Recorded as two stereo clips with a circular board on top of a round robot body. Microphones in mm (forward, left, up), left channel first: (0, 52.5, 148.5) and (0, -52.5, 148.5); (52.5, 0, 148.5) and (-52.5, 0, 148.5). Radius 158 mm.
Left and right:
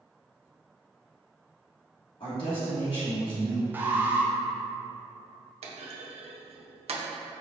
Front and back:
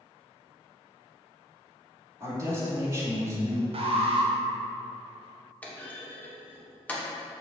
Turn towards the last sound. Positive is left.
turn(degrees=-75)